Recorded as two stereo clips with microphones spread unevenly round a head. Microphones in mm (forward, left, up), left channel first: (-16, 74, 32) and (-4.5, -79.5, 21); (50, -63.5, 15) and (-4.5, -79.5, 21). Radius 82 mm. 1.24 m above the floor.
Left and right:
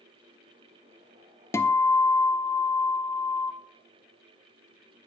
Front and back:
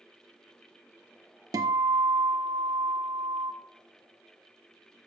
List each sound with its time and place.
1.5 s a guitar: 170° left, 0.5 m